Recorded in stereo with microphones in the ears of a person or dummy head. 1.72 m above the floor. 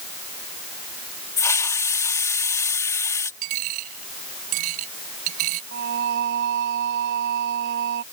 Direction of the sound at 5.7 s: 55° right (ahead or behind).